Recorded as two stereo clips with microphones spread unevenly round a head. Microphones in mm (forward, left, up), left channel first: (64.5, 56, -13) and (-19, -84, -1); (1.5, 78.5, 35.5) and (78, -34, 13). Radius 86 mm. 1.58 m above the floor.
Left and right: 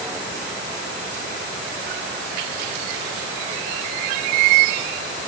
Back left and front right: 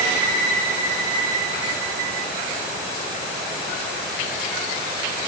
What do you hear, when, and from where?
Only background noise.